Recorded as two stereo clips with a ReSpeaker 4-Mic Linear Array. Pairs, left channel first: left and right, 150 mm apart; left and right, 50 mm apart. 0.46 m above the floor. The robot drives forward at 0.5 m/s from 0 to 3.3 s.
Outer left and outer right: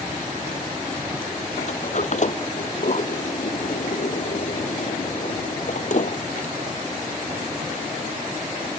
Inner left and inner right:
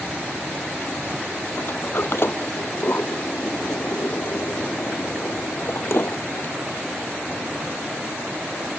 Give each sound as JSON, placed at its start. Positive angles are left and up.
{"t": 1.6, "sound": "a sliding door", "side_deg": 50}